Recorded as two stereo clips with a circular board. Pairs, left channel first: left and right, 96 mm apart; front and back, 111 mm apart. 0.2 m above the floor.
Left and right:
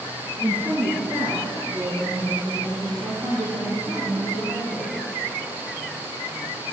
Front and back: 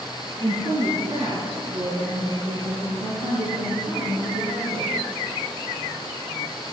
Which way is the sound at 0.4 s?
155° right.